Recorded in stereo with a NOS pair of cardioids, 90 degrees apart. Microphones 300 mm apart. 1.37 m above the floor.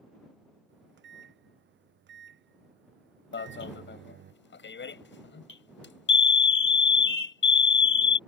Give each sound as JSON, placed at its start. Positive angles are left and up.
{"t": 0.7, "sound": "a microwave", "azimuth_deg": -40}
{"t": 3.3, "sound": "an alarm", "azimuth_deg": 40}